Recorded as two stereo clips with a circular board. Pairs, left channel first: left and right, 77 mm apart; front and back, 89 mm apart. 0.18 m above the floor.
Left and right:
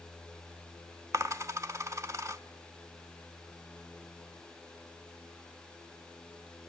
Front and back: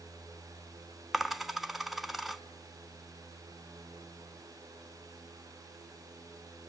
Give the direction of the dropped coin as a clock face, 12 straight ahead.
3 o'clock.